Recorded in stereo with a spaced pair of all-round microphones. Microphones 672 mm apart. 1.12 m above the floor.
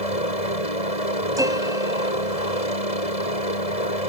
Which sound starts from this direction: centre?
A piano, at 1.4 s.